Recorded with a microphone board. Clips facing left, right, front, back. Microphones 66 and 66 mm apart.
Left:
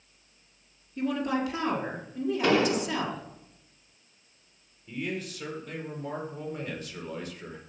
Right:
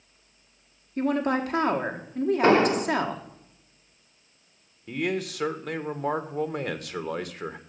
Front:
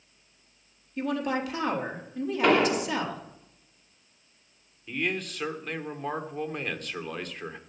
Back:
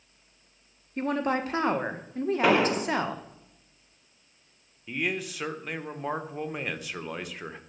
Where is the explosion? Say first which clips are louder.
Right 4 dB, front 1 dB; 100° right, 0.7 m.